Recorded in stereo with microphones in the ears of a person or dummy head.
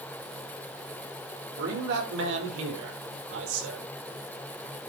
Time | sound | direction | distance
1.6 | a man speaking | 65° right (ahead or behind) | 5.5 m